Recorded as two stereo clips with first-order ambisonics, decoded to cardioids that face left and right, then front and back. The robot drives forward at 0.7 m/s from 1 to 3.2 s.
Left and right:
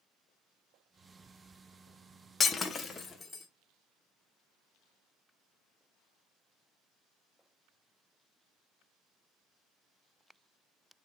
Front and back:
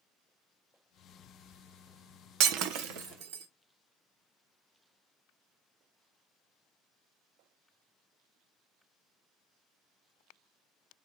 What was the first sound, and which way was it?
Breaking glass, 160° left.